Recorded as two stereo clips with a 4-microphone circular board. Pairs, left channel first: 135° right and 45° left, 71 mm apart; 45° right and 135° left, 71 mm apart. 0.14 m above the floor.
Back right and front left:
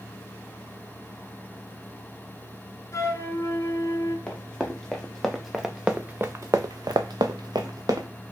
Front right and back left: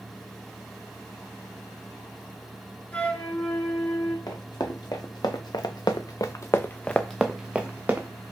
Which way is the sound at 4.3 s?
60° right.